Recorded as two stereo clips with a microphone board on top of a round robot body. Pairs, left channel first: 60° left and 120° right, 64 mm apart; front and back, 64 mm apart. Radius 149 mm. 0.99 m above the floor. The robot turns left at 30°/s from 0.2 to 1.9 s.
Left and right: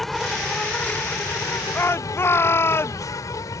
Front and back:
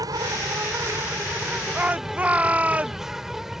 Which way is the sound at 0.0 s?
145° left.